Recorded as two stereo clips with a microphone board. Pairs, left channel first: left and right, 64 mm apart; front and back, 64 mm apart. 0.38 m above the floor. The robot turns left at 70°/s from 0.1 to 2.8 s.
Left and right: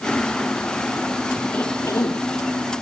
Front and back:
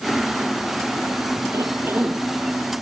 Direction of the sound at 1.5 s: 155° left.